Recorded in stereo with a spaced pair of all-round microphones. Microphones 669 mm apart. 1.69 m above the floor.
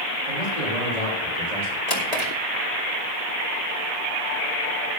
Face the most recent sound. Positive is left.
turn(degrees=65)  # may be behind; listen again after turning